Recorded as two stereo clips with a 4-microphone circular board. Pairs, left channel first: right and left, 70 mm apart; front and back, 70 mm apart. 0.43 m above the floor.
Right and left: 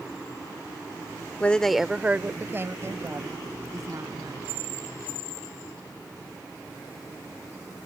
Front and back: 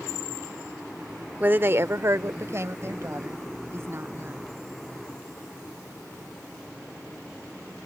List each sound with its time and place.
1.4 s a woman speaking: 140° right; by 4.4 s 125° left